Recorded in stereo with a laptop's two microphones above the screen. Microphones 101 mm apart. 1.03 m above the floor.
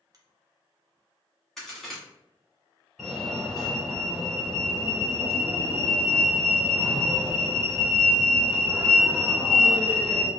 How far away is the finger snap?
About 0.8 m.